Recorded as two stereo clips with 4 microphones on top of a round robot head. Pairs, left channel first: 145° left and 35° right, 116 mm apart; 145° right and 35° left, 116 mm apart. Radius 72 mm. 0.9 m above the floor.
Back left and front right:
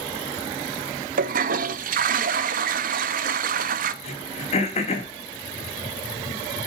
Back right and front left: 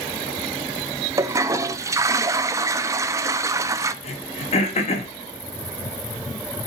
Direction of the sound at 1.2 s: 30° right.